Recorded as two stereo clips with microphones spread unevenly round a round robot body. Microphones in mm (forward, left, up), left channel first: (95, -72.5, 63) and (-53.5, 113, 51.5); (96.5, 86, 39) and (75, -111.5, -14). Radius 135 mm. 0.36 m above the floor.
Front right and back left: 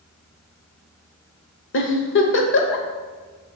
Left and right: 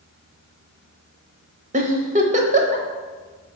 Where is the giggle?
75° right, 1.2 m.